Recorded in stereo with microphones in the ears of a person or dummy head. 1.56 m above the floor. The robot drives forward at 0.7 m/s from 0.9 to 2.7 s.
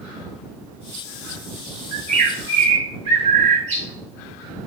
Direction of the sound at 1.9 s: 45° right (ahead or behind).